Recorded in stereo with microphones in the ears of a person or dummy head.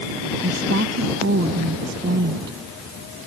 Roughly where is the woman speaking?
Right.